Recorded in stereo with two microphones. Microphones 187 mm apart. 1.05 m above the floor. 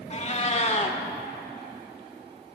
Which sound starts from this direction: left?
A cat meowing, at 0.1 s.